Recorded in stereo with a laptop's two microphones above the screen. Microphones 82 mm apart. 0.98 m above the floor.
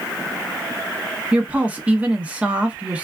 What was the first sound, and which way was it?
A woman speaking, 15° right (ahead or behind).